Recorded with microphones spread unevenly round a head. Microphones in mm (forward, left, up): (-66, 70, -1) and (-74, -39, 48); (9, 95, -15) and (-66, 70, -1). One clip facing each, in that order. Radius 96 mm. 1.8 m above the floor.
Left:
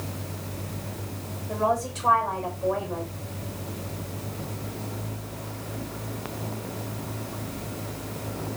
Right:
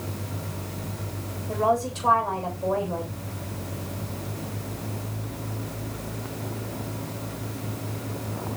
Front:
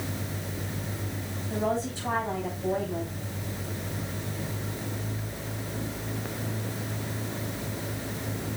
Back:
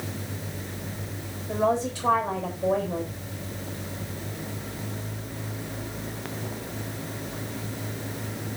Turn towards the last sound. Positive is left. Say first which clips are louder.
# right 2 dB, back 5 dB
turn(degrees=-155)